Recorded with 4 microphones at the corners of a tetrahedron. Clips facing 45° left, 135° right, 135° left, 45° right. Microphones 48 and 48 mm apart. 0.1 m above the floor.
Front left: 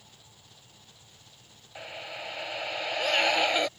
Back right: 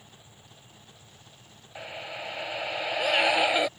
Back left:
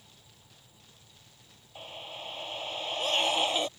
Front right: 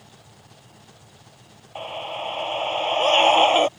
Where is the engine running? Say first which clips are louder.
Back right 3 dB, front right 9 dB; 65° right.